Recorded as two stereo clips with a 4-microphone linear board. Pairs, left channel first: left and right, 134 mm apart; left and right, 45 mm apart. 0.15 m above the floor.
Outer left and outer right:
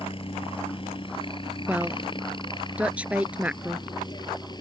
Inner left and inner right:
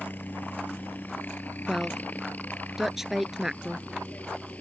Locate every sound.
0.0 s a helicopter: 40° left (ahead or behind); by 4.6 s 30° left (ahead or behind)
1.7 s a woman speaking: 10° right (ahead or behind)